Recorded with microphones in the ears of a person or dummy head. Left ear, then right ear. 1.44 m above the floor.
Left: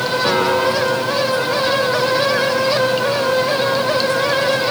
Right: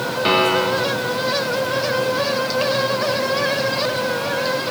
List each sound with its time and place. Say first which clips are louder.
0.2 s a piano: right 1 dB; 55° right (ahead or behind), 3.5 m